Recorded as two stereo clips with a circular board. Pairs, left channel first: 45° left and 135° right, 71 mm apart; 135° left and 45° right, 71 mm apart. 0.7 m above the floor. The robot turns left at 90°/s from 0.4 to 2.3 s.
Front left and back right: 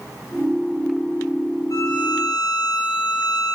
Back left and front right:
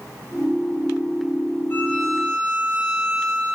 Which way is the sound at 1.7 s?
80° left.